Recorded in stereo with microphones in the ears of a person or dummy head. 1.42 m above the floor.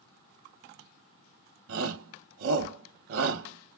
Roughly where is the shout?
Right.